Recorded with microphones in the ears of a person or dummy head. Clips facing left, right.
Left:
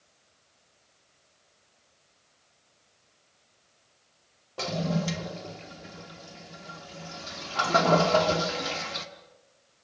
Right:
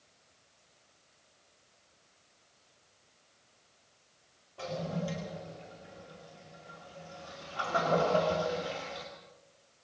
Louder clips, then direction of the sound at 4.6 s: Left 6 dB; 70° left (ahead or behind).